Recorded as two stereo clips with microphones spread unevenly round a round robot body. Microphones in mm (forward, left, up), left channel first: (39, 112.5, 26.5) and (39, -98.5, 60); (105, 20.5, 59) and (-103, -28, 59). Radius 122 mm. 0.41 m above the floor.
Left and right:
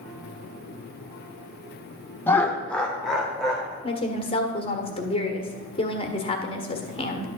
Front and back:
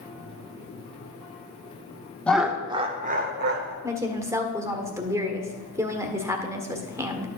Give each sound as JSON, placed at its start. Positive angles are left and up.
{"t": 2.3, "sound": "laughter", "azimuth_deg": 85, "distance_m": 0.9}
{"t": 3.8, "sound": "a woman speaking", "azimuth_deg": 125, "distance_m": 1.4}